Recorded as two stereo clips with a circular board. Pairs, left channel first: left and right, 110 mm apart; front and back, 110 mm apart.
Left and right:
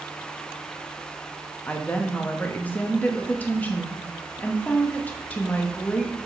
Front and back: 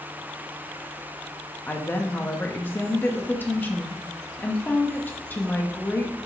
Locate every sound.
1.7 s a woman speaking: 40° left, 0.8 m